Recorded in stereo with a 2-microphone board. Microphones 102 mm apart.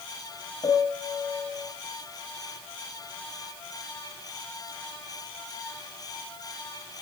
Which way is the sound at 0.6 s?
55° left (ahead or behind).